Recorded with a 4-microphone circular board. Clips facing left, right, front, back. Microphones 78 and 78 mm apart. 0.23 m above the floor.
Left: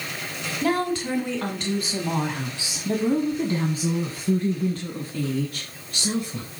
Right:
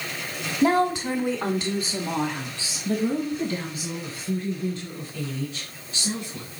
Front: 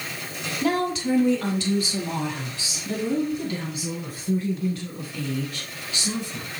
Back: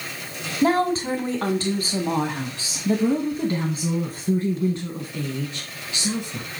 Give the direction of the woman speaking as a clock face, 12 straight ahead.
5 o'clock.